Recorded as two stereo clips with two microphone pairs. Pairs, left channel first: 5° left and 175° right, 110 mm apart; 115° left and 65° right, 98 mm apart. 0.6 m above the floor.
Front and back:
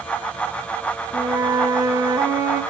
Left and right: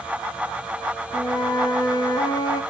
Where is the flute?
140° left, 0.6 m.